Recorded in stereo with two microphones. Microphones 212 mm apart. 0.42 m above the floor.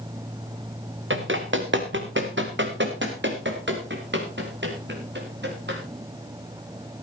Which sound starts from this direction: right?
Running footsteps, at 1.1 s.